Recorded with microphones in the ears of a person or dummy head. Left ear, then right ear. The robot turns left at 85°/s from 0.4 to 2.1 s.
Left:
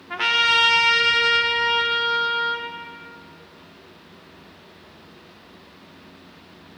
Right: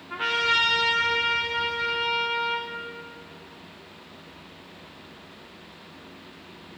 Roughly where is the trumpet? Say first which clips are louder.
Left 5 dB; behind left.